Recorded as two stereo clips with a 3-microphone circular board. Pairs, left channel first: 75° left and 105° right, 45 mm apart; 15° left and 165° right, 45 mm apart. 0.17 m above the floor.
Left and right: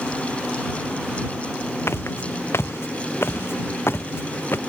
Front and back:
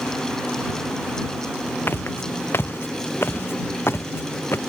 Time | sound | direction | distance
1.9 | footsteps | 50° left | ?